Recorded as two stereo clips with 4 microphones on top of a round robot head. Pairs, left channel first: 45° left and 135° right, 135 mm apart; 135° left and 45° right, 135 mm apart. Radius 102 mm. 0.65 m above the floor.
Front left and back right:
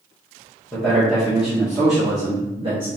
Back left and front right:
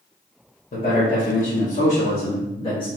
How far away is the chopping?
No chopping in this recording.